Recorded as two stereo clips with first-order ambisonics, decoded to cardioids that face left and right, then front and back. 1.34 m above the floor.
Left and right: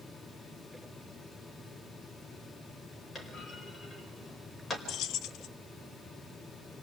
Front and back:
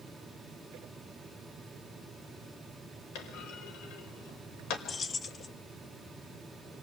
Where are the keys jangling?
65° left, 0.7 m.